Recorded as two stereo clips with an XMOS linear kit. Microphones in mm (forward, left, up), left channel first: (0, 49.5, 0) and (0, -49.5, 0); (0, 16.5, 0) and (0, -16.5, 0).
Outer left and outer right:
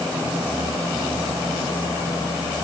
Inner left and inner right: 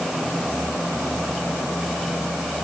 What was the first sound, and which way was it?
Only background noise.